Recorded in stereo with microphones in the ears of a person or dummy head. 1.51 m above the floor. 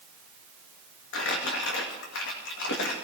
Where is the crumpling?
65° left (ahead or behind), 2 m.